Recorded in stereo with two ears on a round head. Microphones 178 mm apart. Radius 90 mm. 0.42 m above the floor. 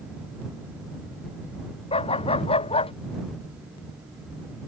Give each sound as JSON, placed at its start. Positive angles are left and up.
{"t": 1.9, "sound": "a dog barking", "side_deg": 30}